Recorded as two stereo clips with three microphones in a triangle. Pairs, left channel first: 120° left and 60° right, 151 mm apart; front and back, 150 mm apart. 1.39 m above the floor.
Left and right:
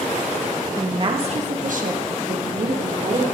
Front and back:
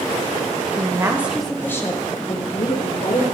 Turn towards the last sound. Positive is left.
turn(degrees=-40)